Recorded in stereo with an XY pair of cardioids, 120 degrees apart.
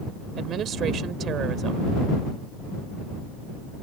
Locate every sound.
0.4 s a woman speaking: 55° right